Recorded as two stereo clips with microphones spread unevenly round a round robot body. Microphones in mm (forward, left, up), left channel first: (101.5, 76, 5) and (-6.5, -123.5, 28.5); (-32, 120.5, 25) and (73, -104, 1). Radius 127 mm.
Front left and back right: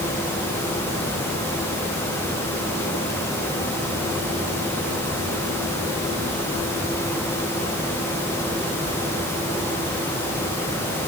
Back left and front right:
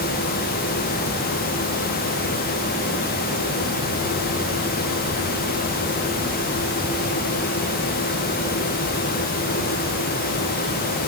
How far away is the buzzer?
I don't hear a buzzer.